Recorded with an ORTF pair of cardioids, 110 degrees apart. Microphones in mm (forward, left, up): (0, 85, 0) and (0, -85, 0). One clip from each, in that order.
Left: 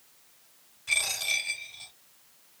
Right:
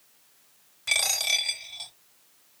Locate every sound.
0.9 s a dropped coin: 55° right, 2 m